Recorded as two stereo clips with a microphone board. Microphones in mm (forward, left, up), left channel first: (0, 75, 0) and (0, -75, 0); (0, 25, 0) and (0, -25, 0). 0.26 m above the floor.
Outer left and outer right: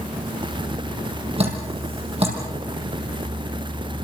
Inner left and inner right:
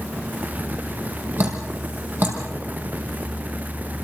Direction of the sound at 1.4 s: 40° right (ahead or behind).